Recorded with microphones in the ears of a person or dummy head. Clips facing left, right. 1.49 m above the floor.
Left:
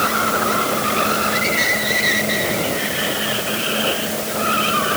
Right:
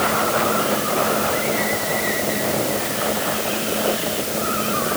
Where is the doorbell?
No doorbell in this recording.